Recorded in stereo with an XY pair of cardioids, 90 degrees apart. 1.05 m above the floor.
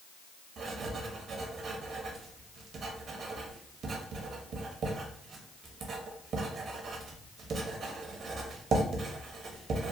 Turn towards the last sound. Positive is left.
turn(degrees=-65)